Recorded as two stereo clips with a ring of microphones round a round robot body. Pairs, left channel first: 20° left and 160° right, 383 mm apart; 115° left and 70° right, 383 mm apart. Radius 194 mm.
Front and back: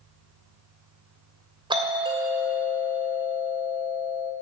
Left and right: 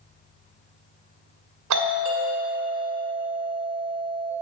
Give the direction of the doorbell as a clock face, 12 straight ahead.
3 o'clock.